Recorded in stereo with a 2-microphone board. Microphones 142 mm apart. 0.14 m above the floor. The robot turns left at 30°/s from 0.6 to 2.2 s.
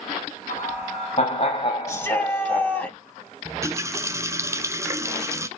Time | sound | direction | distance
0.5 | laughter | 80° left | 5 m
1.9 | a shout | 20° left (ahead or behind) | 3 m
3.5 | a running tap | 20° right (ahead or behind) | 1.0 m